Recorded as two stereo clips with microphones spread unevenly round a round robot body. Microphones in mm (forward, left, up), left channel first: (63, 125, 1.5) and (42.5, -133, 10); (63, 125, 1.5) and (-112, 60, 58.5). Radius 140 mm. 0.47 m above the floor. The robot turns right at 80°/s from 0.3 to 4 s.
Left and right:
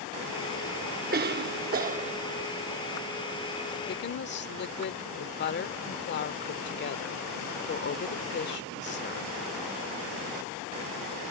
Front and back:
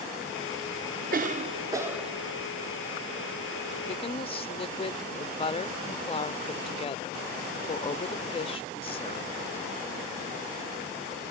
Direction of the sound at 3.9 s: 45° left.